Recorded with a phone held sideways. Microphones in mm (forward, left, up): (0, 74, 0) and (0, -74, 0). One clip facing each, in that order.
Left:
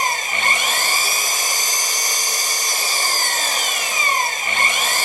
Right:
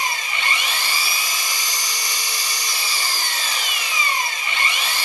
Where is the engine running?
45° left (ahead or behind), 1.0 m.